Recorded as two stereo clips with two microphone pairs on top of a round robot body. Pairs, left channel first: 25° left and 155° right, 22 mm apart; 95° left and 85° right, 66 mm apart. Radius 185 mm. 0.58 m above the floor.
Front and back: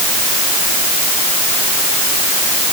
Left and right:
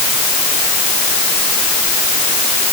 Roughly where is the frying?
No frying in this recording.